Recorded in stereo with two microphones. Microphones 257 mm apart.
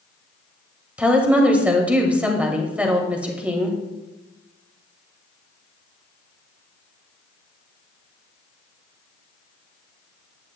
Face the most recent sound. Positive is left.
turn(degrees=-5)  # may be behind; listen again after turning